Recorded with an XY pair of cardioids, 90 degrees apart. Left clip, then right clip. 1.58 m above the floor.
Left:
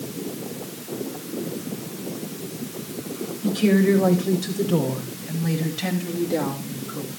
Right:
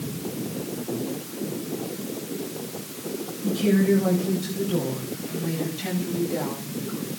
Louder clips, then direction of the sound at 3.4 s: Left 2 dB; 70° left.